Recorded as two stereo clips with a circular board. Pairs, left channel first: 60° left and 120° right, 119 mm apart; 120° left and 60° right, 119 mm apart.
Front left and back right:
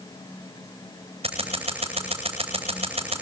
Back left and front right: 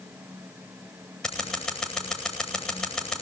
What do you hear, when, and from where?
1.2 s scissors: 155° right, 10 m